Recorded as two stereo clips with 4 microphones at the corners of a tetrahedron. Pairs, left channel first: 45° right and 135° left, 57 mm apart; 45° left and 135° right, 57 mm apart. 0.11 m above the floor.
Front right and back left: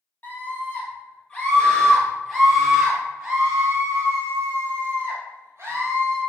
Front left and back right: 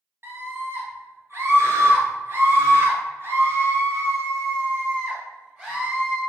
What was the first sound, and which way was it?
A scream, 100° right.